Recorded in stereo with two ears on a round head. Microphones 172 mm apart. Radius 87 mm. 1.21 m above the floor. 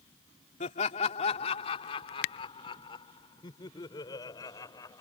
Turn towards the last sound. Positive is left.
turn(degrees=20)  # may be behind; listen again after turning